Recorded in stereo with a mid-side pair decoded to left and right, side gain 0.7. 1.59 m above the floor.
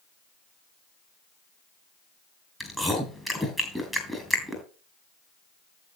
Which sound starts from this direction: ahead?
Chewing, at 2.6 s.